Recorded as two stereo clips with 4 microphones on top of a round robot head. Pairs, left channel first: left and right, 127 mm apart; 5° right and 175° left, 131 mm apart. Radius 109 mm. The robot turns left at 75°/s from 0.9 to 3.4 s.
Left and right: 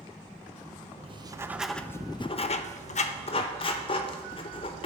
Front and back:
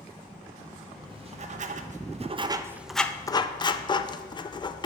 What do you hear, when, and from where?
1.0 s writing: 130° right, 0.5 m; by 4.9 s 50° left, 0.5 m